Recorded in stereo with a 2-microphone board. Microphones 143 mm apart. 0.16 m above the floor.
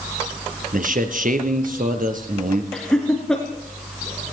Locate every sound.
0.7 s a man speaking: 70° right (ahead or behind), 3.5 m
2.7 s laughter: 5° left (ahead or behind), 3 m